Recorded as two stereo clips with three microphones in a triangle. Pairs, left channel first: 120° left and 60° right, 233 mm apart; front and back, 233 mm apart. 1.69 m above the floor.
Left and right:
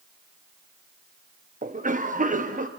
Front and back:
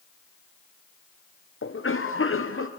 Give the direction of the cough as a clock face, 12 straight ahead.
12 o'clock.